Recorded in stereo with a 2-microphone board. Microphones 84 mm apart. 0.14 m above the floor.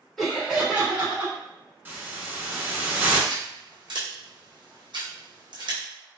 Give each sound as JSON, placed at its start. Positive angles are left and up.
{"t": 0.2, "sound": "laughter", "side_deg": 5, "distance_m": 1.4}
{"t": 1.9, "sound": "a hiss", "side_deg": -25, "distance_m": 0.8}
{"t": 3.3, "sound": "scissors", "side_deg": -70, "distance_m": 1.1}